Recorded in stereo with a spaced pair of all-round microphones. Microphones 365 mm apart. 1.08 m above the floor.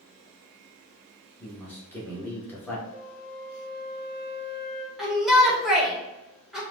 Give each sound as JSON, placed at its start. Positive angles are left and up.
{"t": 1.4, "sound": "a man speaking", "side_deg": 5, "distance_m": 1.6}
{"t": 2.9, "sound": "a flute", "side_deg": 0, "distance_m": 1.4}
{"t": 5.0, "sound": "a shout", "side_deg": 0, "distance_m": 1.7}